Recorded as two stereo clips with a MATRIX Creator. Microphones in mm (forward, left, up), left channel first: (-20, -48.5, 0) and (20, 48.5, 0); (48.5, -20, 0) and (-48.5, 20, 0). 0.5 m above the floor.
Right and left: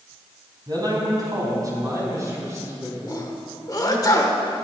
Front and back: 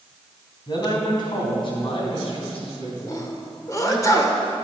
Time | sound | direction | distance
0.7 | a man speaking | 20° left | 3.5 m
3.1 | a sneeze | 70° right | 1.9 m